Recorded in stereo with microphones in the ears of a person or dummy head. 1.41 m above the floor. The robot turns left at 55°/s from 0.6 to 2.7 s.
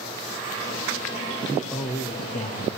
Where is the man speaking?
10° right (ahead or behind), 0.9 m; by 2.8 s 55° left (ahead or behind), 0.9 m.